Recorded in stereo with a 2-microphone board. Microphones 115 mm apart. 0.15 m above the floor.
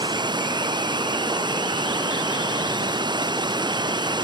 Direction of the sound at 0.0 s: 35° right (ahead or behind).